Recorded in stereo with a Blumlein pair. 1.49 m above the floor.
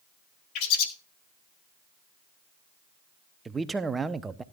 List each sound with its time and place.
0.6 s a bird: 40° left, 1.9 m
3.5 s a man speaking: 15° right, 0.8 m